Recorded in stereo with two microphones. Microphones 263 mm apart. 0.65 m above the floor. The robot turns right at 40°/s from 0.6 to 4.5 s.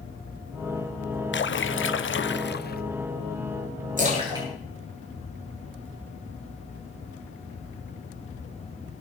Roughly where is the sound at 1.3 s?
Left.